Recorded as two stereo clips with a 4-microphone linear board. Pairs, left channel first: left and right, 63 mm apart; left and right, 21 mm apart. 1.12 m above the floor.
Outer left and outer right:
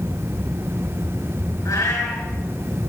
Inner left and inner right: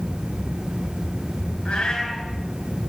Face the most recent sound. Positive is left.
turn(degrees=55)  # may be behind; listen again after turning